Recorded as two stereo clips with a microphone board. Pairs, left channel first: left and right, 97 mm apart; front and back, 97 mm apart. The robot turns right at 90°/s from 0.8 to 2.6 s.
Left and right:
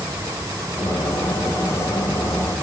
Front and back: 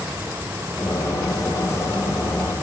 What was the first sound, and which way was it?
Only background noise.